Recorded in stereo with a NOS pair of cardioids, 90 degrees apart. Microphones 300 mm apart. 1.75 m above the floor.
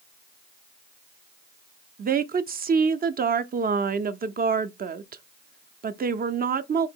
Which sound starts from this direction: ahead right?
A woman speaking, at 2.0 s.